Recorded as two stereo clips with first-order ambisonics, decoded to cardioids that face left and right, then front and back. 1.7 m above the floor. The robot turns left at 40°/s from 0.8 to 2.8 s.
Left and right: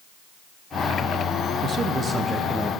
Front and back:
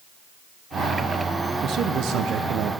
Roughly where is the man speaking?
Behind right.